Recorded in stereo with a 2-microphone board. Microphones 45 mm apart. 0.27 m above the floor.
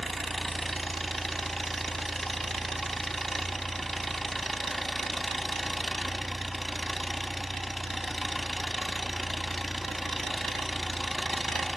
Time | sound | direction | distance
0.0 | an engine running | 5° left (ahead or behind) | 0.7 m